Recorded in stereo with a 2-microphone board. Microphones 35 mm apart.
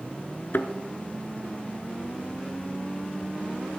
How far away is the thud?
About 0.7 m.